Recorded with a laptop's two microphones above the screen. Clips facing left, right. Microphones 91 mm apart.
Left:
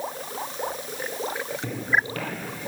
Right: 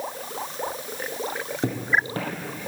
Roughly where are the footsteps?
Right.